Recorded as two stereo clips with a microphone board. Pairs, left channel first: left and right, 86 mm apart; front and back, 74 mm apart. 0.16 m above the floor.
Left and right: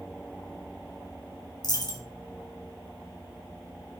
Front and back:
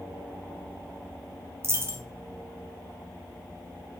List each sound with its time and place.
1.6 s a dropped coin: 130° left, 0.5 m